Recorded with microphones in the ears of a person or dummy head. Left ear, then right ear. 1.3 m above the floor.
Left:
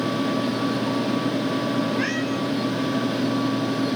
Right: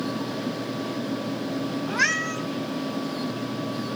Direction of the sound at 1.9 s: 50° right (ahead or behind).